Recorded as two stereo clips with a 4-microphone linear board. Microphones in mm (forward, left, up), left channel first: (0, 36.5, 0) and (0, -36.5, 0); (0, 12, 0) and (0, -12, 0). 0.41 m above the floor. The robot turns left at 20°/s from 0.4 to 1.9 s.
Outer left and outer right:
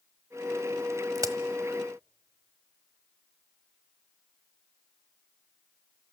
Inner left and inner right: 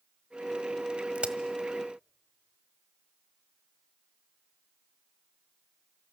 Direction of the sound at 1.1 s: 60° right (ahead or behind).